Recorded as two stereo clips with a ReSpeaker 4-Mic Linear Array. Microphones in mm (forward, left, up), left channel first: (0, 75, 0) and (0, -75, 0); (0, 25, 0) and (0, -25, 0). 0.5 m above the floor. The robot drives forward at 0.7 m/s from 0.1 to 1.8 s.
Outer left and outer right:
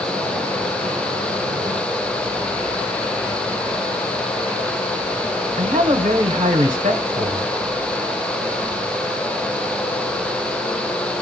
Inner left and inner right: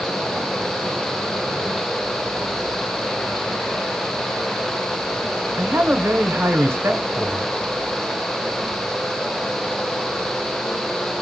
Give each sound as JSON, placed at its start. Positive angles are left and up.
{"t": 5.6, "sound": "a man speaking", "side_deg": -55, "distance_m": 1.7}